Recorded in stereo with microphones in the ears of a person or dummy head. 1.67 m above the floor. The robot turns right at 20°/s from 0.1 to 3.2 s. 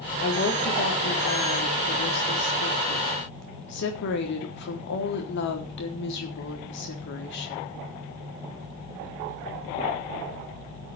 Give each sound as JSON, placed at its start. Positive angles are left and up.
{"t": 0.2, "sound": "a woman speaking", "azimuth_deg": 50, "distance_m": 3.5}